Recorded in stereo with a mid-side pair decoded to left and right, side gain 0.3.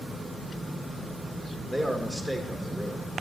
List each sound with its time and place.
1.7 s a man speaking: 5° left, 1.9 m